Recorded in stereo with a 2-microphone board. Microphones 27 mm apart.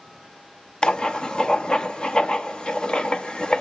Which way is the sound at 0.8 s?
35° left (ahead or behind).